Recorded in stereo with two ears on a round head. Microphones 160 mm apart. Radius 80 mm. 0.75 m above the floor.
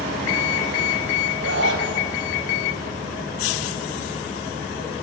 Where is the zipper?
75° right (ahead or behind), 4 m.